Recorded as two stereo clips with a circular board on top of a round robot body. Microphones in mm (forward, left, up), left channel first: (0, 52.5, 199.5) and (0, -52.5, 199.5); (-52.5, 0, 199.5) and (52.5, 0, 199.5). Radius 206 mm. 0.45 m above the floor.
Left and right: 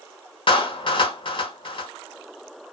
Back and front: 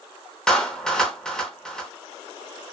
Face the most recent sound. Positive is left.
turn(degrees=100)